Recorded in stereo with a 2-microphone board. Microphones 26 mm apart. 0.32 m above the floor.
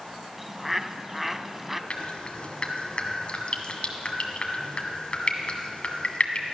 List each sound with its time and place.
0.4 s a bird: 10° right (ahead or behind), 0.5 m
1.9 s dripping: 50° left (ahead or behind), 1.5 m